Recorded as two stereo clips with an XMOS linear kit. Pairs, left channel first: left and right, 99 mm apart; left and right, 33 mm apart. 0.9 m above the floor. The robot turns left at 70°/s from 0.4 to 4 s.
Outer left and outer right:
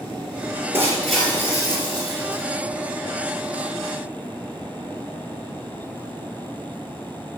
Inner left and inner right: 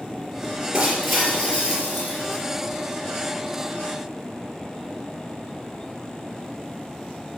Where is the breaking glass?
155° right, 4.5 m; by 2.4 s 90° left, 4.5 m.